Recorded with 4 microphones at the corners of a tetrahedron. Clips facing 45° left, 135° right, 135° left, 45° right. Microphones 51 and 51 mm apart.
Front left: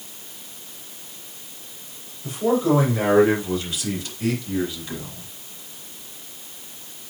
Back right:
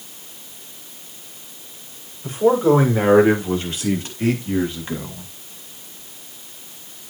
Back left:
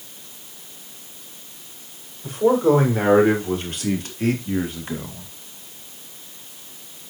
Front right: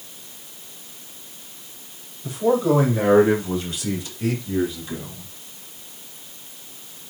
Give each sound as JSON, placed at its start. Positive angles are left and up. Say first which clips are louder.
{"t": 2.2, "sound": "a man speaking", "louder": "back right 5 dB, back left 2 dB", "azimuth_deg": 170, "distance_m": 7.0}